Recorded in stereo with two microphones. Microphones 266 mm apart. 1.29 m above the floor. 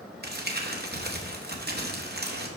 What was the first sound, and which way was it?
Crumpling, 40° right (ahead or behind).